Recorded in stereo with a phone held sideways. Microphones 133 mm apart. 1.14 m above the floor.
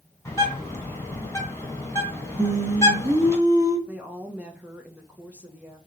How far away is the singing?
About 1.6 m.